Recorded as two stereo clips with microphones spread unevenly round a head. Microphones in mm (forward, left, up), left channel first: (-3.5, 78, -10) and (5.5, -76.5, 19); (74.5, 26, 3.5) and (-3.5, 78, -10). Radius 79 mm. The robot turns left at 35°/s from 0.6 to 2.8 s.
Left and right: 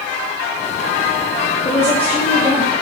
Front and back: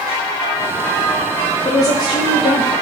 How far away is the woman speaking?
About 0.8 m.